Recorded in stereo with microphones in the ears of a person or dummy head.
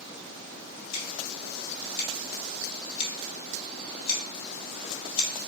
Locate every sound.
0.9 s scissors: 55° left (ahead or behind), 1.9 m